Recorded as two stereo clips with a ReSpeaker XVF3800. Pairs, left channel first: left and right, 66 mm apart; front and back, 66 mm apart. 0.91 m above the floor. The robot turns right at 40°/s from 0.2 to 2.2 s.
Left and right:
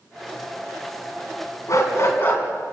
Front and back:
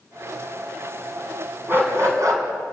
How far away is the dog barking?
About 4 m.